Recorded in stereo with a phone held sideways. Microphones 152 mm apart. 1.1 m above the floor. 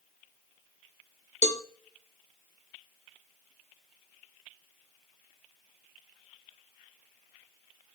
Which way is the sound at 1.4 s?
50° left (ahead or behind).